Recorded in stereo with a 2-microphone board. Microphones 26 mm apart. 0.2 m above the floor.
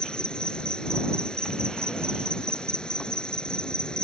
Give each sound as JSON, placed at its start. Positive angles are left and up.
{"t": 0.0, "sound": "an insect", "side_deg": 30}